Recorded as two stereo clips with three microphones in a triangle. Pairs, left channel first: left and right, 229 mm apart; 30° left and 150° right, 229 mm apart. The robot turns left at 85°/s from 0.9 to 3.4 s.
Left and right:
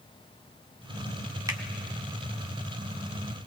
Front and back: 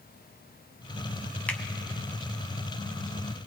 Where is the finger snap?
45° right, 0.9 m; by 1.6 s 55° right, 0.9 m.